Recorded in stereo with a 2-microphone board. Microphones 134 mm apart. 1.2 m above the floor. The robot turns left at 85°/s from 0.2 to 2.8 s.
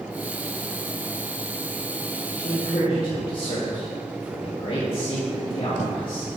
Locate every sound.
2.4 s a man speaking: 95° left, 3 m; by 6.4 s 60° left, 3 m